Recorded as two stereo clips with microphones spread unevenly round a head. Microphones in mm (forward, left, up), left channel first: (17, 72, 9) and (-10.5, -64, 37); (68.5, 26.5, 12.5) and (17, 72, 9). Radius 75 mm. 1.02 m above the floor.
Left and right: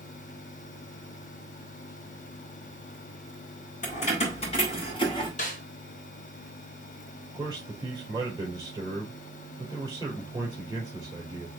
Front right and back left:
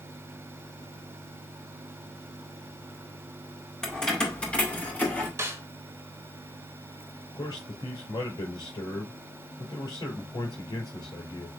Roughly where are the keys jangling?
Ahead left.